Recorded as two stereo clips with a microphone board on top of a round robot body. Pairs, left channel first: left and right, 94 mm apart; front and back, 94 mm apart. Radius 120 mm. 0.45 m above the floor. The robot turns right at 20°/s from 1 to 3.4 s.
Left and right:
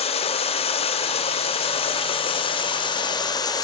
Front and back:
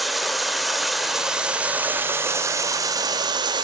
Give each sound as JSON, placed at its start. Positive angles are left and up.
{"t": 0.0, "sound": "running water", "azimuth_deg": 90, "distance_m": 0.8}